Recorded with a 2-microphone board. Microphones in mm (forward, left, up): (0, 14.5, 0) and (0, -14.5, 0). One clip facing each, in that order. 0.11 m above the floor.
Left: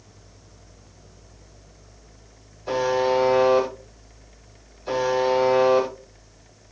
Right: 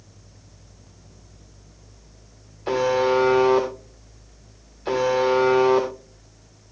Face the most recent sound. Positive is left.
turn(degrees=-50)  # may be behind; listen again after turning